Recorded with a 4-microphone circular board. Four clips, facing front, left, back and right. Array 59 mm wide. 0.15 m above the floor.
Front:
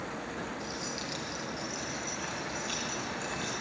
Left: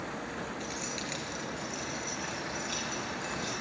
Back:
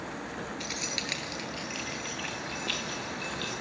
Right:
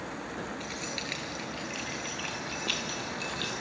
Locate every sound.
0.6 s keys jangling: 170° right, 2.0 m; by 3.5 s 120° right, 4 m